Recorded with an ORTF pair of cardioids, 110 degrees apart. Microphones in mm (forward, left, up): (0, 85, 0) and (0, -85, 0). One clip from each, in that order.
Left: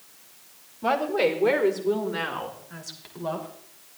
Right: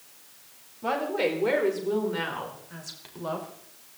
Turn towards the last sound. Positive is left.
turn(degrees=0)